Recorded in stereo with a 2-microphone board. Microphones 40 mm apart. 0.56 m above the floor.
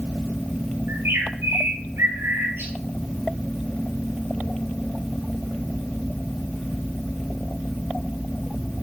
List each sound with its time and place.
0.9 s a bird: 75° right (ahead or behind), 2.5 m